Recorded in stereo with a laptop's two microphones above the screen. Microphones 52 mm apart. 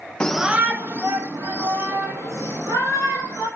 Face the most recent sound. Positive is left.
turn(degrees=-80)